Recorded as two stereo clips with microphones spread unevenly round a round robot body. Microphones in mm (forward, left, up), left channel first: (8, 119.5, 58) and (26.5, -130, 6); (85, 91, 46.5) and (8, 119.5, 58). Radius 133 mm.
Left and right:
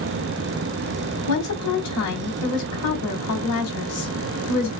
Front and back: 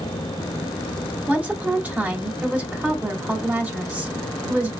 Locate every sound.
1.3 s a woman speaking: 85° left, 2.5 m